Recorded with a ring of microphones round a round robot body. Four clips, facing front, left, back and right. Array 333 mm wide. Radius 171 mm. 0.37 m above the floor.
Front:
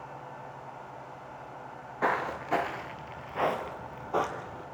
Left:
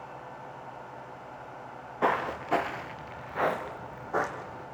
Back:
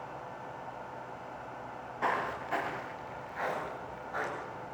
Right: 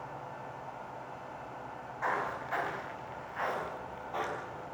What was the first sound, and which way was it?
Footsteps, 70° left.